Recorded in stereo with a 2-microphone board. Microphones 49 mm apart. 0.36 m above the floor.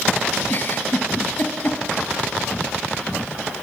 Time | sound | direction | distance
0.5 | a giggle | 40° left (ahead or behind) | 2 m